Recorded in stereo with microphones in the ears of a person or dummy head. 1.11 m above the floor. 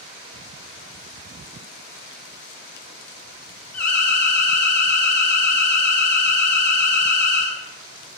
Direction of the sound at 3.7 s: 10° left (ahead or behind).